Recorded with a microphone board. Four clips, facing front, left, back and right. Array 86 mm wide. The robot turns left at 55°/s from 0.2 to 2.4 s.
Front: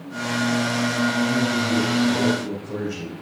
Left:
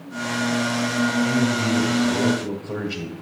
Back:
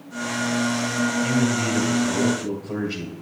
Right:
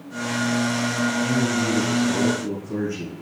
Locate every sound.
1.2 s a man speaking: 175° right, 1.8 m; by 3.1 s 120° left, 1.8 m